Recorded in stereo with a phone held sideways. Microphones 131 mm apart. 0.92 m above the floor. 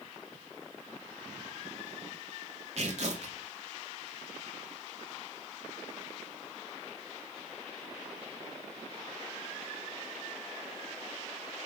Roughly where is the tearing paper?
Right.